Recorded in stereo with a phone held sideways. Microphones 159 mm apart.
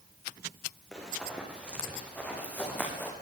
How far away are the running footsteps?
About 8.5 m.